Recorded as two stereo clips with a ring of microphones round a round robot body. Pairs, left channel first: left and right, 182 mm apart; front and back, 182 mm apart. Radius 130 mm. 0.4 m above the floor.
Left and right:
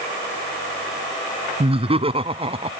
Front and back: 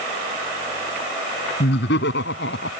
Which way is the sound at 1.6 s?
35° right.